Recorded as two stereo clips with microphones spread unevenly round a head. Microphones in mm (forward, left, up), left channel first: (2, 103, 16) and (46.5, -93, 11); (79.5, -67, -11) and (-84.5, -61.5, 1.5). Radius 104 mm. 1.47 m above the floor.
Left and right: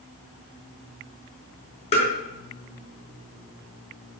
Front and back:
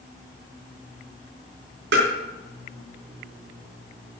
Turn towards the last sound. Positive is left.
turn(degrees=165)